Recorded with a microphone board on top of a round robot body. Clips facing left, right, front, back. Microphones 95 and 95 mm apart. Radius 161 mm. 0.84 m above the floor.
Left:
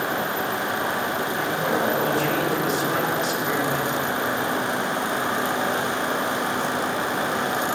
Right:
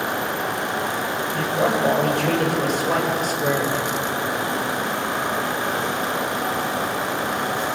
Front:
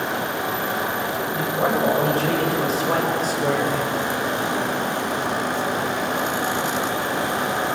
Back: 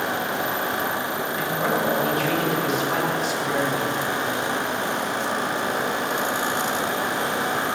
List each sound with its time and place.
1.3 s a man speaking: 65° right, 7 m; by 3.9 s 35° right, 5 m